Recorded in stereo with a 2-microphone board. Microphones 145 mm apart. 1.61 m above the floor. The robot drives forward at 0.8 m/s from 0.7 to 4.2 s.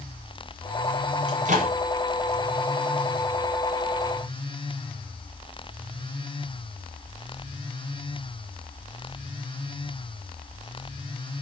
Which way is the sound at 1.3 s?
55° right (ahead or behind).